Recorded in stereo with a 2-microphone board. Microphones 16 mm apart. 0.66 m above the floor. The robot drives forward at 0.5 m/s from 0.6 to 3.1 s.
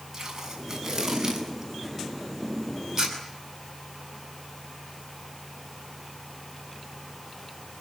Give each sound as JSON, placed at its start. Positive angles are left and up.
{"t": 0.1, "sound": "tape being pulled", "side_deg": -20, "distance_m": 7.0}